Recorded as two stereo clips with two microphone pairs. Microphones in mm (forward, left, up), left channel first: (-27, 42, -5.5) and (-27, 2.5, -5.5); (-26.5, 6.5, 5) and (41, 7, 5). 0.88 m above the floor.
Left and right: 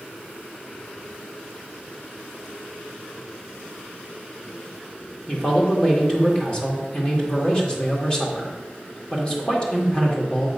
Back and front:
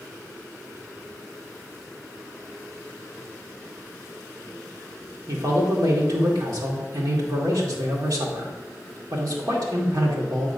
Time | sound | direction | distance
5.3 | a man speaking | 20° left | 1.9 m